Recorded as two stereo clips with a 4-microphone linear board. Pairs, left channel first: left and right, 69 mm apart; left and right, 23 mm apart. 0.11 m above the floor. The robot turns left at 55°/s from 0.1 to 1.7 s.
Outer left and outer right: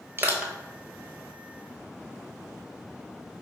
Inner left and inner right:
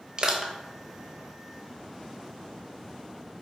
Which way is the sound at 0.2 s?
30° right (ahead or behind).